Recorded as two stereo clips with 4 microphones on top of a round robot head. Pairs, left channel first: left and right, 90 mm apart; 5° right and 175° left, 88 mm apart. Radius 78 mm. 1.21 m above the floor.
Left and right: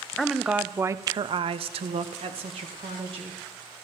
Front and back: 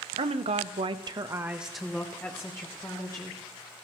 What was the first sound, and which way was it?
A woman speaking, straight behind.